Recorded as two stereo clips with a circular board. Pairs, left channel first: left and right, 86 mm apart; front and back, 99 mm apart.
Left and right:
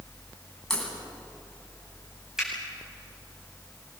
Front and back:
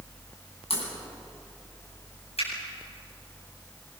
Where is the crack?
5° left, 9 m.